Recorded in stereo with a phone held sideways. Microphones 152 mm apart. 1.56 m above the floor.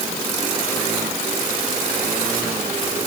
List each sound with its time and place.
Only background noise.